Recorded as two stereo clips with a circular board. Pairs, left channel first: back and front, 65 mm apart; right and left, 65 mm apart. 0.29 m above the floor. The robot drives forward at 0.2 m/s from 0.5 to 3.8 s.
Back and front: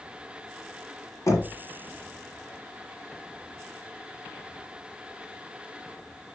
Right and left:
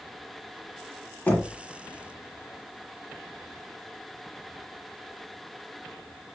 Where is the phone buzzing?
I don't hear a phone buzzing.